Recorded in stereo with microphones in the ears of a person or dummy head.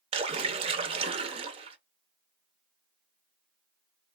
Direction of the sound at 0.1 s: 30° right (ahead or behind).